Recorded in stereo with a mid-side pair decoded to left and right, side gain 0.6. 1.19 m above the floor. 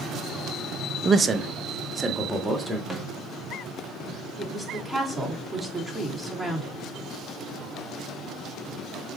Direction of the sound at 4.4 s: 5° left.